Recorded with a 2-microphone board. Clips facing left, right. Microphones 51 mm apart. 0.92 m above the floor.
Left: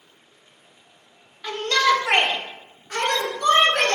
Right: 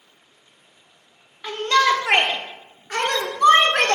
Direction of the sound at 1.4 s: 15° right (ahead or behind).